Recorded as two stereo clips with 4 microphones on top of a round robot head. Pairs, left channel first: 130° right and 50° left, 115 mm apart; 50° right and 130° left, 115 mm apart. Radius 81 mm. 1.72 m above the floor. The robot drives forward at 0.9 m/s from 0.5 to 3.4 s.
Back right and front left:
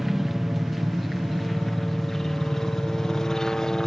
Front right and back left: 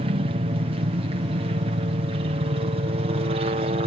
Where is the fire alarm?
No fire alarm in this recording.